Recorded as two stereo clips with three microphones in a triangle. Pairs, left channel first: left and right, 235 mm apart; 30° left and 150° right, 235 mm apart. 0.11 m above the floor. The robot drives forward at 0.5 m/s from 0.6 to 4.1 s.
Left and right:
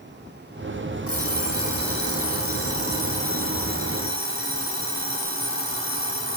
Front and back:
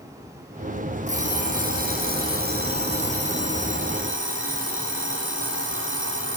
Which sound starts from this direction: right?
An alarm clock, at 1.1 s.